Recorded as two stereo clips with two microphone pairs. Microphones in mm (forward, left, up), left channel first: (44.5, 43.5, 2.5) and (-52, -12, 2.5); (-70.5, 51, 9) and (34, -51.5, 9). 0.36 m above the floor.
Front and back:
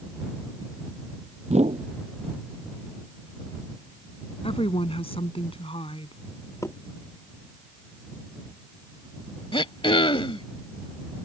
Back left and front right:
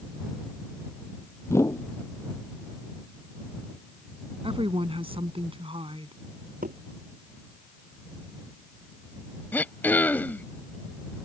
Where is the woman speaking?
5° left.